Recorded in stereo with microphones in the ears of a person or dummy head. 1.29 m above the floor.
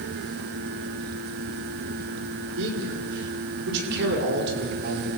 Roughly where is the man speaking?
Right.